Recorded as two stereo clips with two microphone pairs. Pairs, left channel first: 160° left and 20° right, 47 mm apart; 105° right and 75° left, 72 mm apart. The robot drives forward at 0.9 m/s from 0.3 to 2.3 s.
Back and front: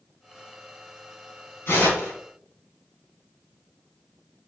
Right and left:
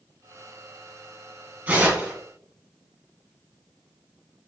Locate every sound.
1.7 s tearing paper: 145° left, 2.5 m; by 2.1 s 150° left, 2.5 m